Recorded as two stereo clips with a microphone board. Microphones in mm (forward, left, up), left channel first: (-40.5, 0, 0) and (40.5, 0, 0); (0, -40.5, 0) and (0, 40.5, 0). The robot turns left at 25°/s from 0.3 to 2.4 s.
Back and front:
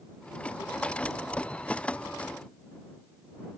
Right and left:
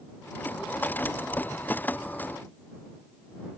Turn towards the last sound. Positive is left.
No sound to turn to.